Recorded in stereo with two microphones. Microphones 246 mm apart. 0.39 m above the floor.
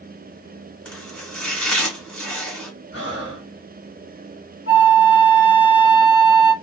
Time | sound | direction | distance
0.8 | chopping | 5° left (ahead or behind) | 1.5 m
2.9 | breathing | 75° left (ahead or behind) | 1.4 m
4.7 | a flute | 70° left (ahead or behind) | 1.3 m